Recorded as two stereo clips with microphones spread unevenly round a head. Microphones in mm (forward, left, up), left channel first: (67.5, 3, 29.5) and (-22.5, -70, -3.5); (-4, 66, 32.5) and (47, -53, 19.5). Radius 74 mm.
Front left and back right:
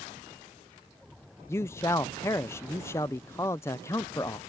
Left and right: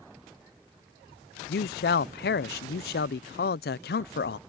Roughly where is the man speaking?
Left.